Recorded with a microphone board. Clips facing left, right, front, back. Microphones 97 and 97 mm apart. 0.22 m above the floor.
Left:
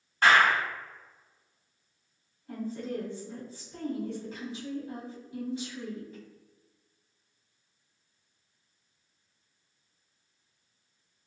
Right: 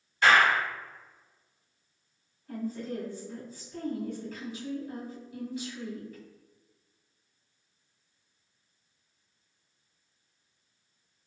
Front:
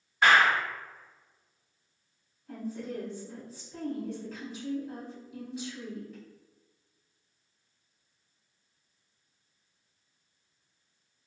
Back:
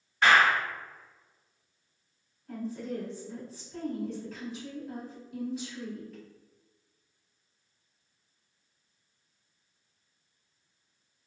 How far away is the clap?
About 1.9 m.